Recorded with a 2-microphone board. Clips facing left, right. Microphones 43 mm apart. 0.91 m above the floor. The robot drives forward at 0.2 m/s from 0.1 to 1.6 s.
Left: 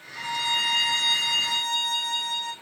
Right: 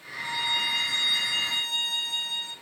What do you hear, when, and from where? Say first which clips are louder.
0.2 s a violin: left 2 dB; 75° left (ahead or behind), 0.5 m; by 2.5 s 60° left (ahead or behind), 0.6 m